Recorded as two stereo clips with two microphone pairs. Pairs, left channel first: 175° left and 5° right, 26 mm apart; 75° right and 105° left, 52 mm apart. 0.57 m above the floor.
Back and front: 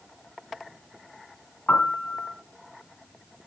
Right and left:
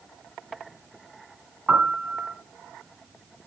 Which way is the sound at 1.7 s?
160° left.